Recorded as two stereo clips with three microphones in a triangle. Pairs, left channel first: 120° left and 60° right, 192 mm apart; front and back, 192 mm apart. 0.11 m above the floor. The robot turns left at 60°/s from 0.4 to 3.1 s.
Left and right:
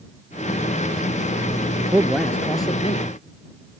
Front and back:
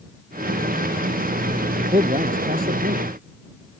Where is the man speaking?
125° right; by 3.1 s 155° left.